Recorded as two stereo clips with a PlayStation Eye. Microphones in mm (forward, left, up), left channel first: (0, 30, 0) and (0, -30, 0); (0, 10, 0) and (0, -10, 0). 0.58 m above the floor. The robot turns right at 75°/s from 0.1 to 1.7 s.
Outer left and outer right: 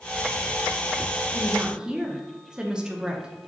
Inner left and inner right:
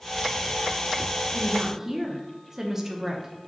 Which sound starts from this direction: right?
A woman speaking, at 1.3 s.